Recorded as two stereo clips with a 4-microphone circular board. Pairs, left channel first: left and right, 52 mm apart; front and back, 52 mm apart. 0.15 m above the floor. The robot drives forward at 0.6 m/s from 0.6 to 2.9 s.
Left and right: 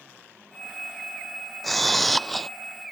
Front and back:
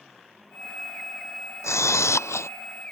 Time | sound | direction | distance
1.6 | a camera shutter | straight ahead | ?